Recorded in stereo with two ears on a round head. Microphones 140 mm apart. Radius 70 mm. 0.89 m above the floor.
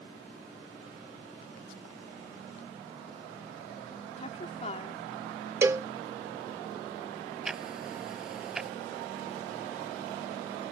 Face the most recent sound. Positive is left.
turn(degrees=-5)  # may be behind; listen again after turning